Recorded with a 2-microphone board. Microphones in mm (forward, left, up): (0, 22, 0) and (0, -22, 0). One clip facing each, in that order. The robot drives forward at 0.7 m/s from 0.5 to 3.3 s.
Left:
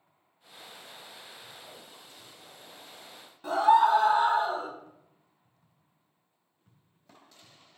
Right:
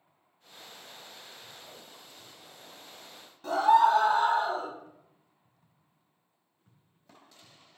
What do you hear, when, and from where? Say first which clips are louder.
3.4 s a scream: even; 10° left (ahead or behind), 1.8 m